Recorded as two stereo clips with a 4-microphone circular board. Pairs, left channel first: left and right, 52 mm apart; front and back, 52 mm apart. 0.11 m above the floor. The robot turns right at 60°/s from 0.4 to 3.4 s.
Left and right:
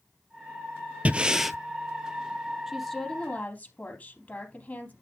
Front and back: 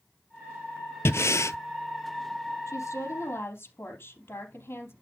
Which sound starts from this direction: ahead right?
Breathing, at 1.1 s.